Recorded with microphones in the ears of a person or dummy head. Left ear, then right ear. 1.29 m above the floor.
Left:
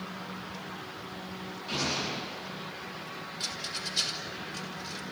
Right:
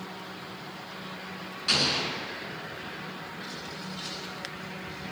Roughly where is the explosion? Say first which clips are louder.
Right 6 dB; right.